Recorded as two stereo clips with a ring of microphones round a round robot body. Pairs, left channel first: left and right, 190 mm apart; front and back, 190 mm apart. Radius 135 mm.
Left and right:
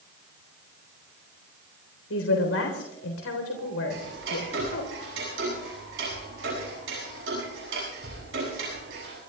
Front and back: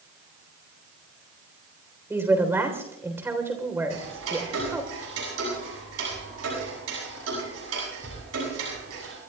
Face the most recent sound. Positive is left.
turn(degrees=-140)